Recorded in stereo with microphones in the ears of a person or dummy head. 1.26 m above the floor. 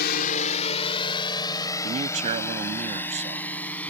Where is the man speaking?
35° right (ahead or behind).